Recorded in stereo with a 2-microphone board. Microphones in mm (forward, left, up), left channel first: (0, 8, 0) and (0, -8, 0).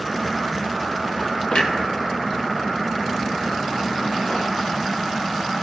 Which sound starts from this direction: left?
A clunk, at 1.5 s.